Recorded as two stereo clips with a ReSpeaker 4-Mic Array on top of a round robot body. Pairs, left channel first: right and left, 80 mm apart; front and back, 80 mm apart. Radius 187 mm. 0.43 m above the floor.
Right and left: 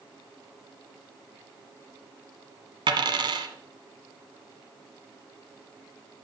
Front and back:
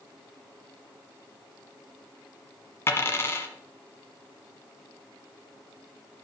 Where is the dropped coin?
60° left, 1.4 m.